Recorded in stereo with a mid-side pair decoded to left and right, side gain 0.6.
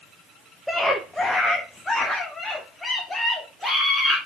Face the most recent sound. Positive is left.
turn(degrees=15)